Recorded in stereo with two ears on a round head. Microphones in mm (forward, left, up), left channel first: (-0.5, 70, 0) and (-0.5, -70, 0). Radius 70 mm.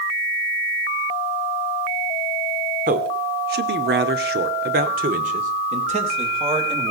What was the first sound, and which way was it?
A man speaking, 55° right (ahead or behind).